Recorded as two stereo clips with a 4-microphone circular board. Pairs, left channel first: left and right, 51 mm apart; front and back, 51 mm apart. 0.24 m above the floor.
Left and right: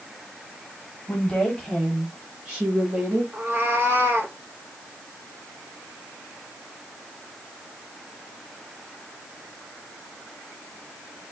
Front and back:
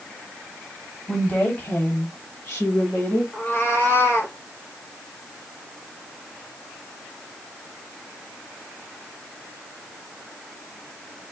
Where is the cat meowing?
45° right, 1.4 m.